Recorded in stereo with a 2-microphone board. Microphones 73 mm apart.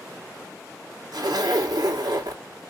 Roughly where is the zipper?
Right.